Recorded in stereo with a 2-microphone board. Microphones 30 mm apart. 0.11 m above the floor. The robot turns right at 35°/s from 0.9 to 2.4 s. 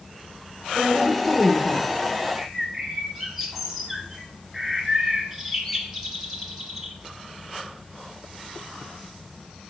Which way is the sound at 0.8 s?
10° right.